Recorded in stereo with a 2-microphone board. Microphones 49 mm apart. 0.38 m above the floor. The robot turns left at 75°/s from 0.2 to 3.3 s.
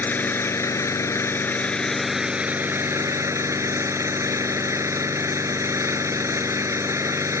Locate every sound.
0.0 s an engine running: 140° left; by 7.4 s 95° right